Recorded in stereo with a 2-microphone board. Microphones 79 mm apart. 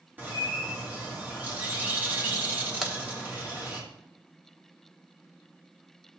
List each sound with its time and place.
0.2 s a bird: 20° right (ahead or behind), 2.0 m
2.8 s a crack: 5° right (ahead or behind), 1.1 m